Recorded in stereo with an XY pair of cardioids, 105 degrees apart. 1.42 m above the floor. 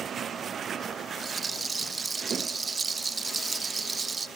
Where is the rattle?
35° right, 0.6 m.